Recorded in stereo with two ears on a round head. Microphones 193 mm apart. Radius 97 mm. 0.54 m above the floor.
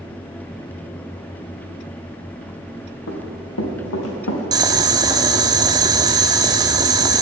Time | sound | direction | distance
3.1 | running footsteps | 65° left (ahead or behind) | 2.5 m
4.5 | boiling | 15° right (ahead or behind) | 0.7 m